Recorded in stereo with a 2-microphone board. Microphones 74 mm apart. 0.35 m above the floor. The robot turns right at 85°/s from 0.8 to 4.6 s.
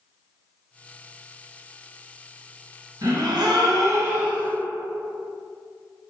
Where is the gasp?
120° right, 1.0 m; by 4.5 s 10° left, 1.0 m.